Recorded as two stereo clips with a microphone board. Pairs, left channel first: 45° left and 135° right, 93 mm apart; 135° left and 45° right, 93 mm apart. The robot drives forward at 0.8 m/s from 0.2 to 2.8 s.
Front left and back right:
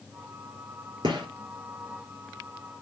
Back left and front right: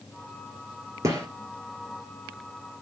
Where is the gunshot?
100° right, 4 m.